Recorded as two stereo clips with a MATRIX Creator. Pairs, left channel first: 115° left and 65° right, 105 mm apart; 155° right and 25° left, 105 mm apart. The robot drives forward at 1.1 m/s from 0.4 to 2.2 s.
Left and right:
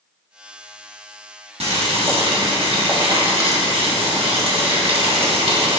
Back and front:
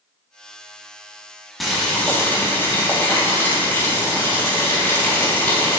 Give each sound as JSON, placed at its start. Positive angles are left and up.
{"t": 1.6, "sound": "boiling", "azimuth_deg": -65, "distance_m": 1.7}